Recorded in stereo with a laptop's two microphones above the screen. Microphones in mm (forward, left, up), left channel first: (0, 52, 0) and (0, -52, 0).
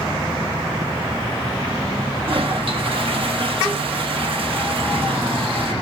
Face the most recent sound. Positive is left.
turn(degrees=-60)  # may be behind; listen again after turning